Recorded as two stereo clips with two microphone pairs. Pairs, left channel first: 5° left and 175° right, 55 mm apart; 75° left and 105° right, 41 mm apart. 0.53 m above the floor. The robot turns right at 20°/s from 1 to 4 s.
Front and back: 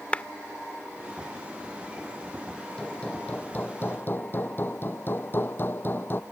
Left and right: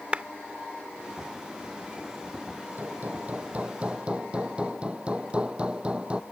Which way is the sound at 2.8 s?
65° right.